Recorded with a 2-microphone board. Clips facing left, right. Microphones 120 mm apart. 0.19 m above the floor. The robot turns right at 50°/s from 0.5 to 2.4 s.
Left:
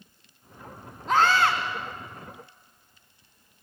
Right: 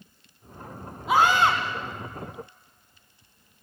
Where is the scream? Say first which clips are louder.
Right 1 dB; 5° right (ahead or behind), 1.4 m; by 1.6 s 20° right (ahead or behind), 1.4 m.